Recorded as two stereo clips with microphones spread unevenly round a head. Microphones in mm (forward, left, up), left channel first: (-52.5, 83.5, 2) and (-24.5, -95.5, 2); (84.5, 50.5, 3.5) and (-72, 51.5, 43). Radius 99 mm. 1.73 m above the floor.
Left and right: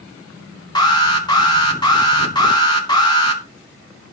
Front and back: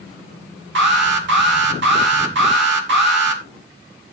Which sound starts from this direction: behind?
An alarm, at 0.8 s.